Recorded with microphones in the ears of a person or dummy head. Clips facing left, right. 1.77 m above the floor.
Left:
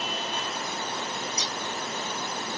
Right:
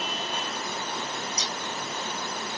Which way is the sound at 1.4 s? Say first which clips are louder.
Even; 35° right (ahead or behind).